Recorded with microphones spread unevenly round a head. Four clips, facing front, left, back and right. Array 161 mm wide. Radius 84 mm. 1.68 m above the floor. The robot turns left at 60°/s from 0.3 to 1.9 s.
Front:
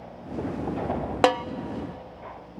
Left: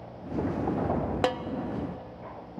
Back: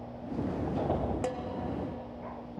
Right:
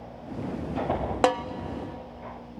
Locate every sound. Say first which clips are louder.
1.2 s a snare drum: right 7 dB, front 13 dB; 25° right, 0.6 m; by 1.4 s 35° right, 0.6 m